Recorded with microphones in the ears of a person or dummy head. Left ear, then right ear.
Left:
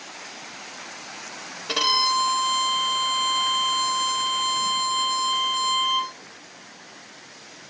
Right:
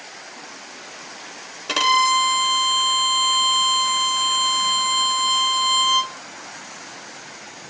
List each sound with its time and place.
1.7 s a violin: 30° right (ahead or behind), 0.8 m